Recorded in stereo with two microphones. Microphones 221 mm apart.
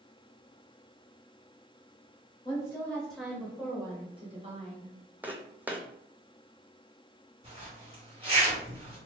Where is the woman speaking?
20° left (ahead or behind), 1.1 m; by 4.9 s 35° right (ahead or behind), 1.4 m.